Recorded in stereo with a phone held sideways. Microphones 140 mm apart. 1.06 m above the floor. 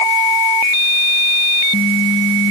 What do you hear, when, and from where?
Only background noise.